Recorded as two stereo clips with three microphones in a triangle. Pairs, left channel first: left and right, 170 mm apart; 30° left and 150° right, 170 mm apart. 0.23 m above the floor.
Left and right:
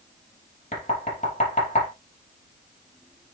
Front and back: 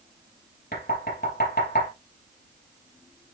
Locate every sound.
0.7 s knocking: 45° left, 5 m